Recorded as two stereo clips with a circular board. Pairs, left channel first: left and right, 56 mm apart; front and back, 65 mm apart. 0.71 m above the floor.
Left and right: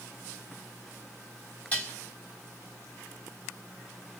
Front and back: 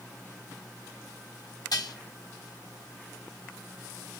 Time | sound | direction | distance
1.7 | dishes clattering | 20° left | 2.5 m